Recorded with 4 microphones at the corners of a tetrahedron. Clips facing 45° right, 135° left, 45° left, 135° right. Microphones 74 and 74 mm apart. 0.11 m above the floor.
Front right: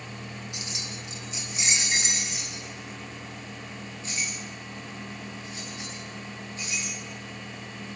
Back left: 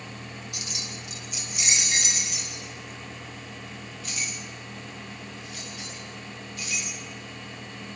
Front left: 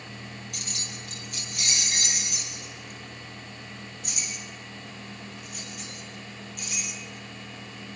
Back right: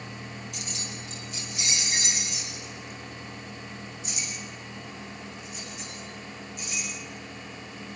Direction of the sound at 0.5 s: 15° left.